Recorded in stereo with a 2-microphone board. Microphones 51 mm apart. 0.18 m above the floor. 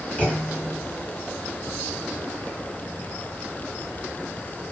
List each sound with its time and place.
0.2 s a clunk: 35° left (ahead or behind), 2.5 m